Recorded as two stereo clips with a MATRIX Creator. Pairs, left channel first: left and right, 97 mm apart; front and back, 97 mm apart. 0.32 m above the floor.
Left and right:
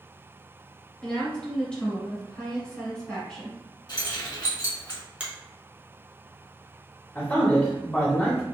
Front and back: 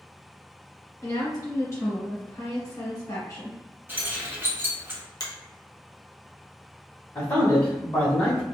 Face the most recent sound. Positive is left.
turn(degrees=35)